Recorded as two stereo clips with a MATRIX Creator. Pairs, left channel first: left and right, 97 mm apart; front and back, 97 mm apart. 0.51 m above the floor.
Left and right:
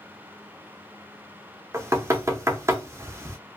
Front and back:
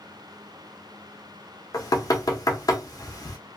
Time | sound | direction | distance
1.7 | knocking | 35° right | 0.7 m